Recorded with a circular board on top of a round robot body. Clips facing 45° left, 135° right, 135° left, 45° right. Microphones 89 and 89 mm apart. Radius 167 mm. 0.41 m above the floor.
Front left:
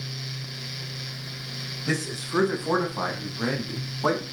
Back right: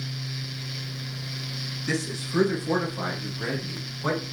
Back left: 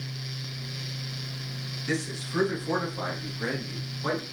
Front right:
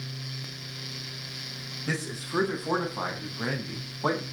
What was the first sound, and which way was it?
A man speaking, straight ahead.